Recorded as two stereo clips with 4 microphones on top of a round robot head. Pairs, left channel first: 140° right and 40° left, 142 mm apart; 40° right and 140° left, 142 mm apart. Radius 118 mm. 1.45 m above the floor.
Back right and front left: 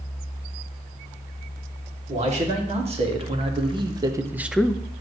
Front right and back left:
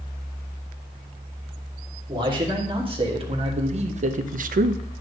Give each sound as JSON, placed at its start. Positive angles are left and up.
{"t": 2.1, "sound": "a man speaking", "azimuth_deg": 80, "distance_m": 1.9}